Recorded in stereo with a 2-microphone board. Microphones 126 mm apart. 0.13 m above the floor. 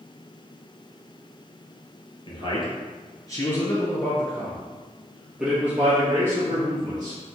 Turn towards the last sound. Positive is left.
turn(degrees=-30)  # may be behind; listen again after turning